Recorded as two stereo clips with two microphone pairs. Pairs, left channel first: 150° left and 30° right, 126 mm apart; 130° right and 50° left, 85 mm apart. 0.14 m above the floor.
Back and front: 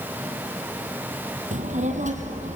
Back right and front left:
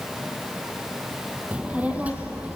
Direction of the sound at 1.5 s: 25° right.